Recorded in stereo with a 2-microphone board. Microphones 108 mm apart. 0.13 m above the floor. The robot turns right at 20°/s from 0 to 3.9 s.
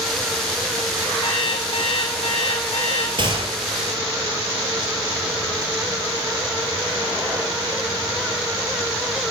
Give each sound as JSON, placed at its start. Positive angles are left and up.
{"t": 1.2, "sound": "an alarm clock", "azimuth_deg": 45, "distance_m": 3.5}
{"t": 3.2, "sound": "a gunshot", "side_deg": -50, "distance_m": 3.0}